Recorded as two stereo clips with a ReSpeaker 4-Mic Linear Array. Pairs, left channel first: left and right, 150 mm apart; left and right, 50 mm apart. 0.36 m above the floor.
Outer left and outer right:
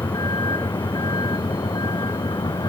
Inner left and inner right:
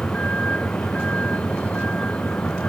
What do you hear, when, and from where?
0.0 s a vehicle: 25° left (ahead or behind)